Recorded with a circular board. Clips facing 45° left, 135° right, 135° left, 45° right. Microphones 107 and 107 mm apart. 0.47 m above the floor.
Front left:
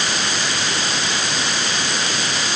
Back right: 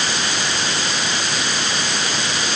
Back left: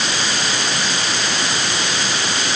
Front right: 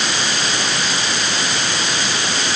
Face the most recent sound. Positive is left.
No sound to turn to.